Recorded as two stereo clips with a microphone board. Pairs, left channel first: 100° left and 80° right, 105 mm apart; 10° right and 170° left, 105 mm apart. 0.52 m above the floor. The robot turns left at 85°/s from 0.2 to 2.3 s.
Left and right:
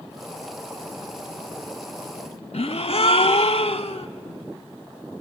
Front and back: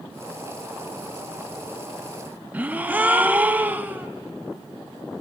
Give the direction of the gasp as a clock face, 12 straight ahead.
9 o'clock.